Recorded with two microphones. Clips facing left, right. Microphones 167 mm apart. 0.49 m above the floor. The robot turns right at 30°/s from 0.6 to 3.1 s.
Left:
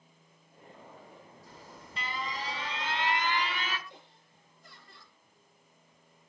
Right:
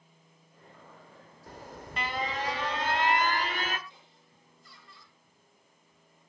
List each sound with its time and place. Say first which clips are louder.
1.5 s an alarm: right 9 dB; 105° right, 1.0 m; by 3.8 s 60° right, 1.0 m
3.9 s laughter: left 4 dB; 50° left (ahead or behind), 8 m